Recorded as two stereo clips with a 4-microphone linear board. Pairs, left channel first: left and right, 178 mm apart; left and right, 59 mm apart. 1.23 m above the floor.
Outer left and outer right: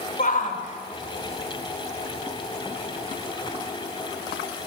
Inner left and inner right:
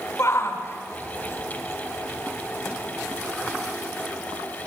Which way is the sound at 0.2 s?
50° left (ahead or behind).